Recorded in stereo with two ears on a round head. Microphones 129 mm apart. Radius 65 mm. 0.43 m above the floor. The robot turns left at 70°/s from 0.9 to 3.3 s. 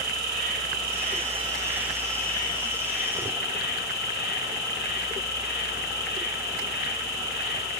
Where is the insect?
105° right, 1.4 m; by 7.8 s 85° left, 1.4 m.